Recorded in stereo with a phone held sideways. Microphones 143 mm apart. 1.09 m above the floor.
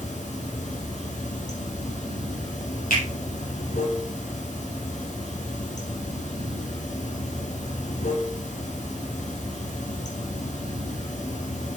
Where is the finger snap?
90° left, 3.5 m.